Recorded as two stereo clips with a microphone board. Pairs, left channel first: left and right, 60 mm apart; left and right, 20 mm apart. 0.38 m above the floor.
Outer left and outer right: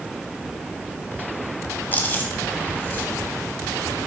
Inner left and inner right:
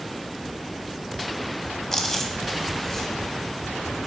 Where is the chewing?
30° left (ahead or behind), 1.1 m.